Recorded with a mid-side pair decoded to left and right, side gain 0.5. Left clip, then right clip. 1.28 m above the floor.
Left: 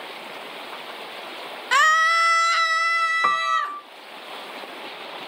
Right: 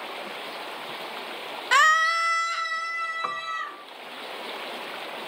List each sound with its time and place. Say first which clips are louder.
1.7 s a scream: left 2 dB; straight ahead, 0.6 m; by 3.8 s 80° left, 1.6 m
3.2 s a piano: left 9 dB; 45° left, 0.6 m